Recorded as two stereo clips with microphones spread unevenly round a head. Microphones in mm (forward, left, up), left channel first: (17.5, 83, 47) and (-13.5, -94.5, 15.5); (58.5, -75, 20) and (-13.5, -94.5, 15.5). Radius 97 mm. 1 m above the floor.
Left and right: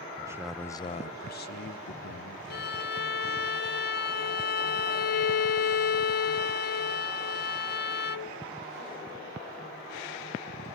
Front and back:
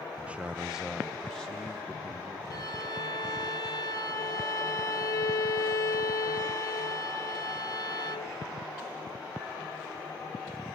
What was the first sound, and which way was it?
A man speaking, 115° right.